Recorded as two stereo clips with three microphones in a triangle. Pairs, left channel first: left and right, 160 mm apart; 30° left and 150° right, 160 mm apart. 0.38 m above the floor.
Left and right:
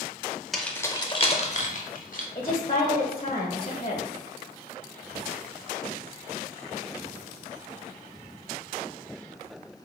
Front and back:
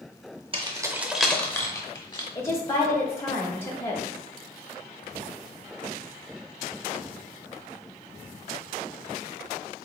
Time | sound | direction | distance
0.5 | keys jangling | straight behind | 0.6 m
2.4 | a woman speaking | 55° left | 1.1 m